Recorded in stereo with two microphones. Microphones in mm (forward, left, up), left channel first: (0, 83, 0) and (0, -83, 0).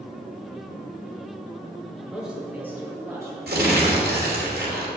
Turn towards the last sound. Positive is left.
turn(degrees=-70)  # may be behind; listen again after turning